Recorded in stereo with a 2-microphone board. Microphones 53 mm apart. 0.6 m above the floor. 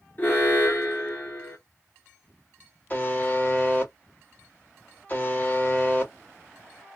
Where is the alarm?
35° left (ahead or behind), 1.5 m.